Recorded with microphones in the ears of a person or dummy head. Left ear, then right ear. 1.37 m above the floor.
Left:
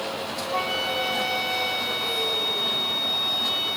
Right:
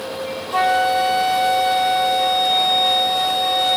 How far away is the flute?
About 1.3 m.